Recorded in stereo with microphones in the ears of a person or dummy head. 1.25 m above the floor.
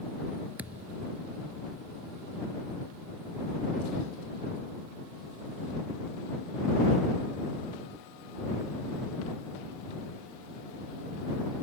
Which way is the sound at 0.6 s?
10° right (ahead or behind).